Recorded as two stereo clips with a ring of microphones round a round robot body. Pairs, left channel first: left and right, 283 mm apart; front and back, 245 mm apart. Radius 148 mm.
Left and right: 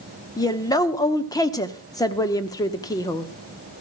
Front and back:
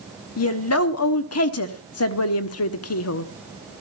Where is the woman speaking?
15° left, 1.2 m.